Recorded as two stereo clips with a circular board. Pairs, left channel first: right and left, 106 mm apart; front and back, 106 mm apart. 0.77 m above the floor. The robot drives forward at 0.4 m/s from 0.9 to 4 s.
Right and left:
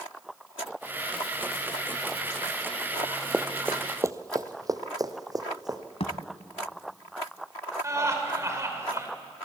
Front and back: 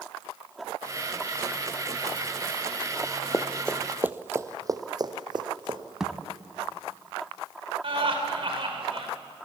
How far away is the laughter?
About 3.5 m.